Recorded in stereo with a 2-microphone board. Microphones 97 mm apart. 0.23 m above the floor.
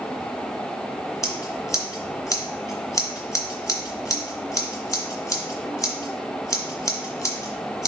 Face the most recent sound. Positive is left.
turn(degrees=35)  # may be behind; listen again after turning